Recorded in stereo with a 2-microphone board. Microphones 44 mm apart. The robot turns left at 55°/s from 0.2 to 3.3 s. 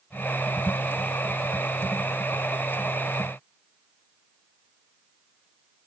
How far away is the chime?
I don't hear a chime.